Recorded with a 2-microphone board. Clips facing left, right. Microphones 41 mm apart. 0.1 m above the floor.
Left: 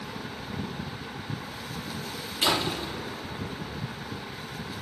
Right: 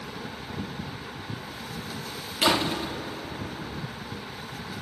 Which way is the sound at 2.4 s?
80° right.